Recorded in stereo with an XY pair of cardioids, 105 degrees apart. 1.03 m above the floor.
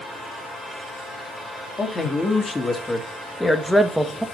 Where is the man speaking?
30° left, 2.0 m; by 4.2 s 15° right, 1.3 m.